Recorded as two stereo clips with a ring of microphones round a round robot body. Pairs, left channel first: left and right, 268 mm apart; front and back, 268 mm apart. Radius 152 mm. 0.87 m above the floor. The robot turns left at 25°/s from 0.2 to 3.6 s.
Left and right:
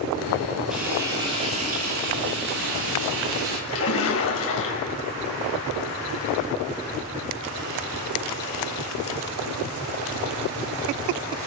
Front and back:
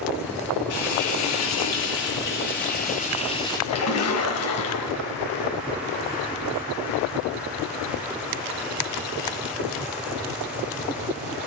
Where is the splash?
40° left, 3.5 m.